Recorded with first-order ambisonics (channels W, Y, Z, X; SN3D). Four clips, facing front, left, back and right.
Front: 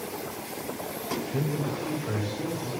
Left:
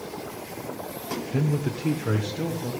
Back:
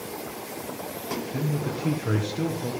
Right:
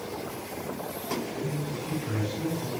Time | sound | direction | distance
1.3 | a man speaking | 80° left | 1.1 m